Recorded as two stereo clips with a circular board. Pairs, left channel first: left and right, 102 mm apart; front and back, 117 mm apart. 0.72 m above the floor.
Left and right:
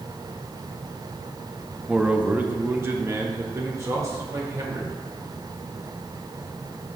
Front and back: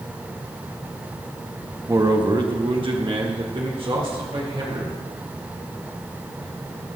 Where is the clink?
I don't hear a clink.